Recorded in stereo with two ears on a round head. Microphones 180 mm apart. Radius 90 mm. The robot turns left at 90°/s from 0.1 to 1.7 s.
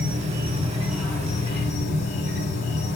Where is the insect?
105° right, 2 m; by 3.0 s 115° left, 2 m.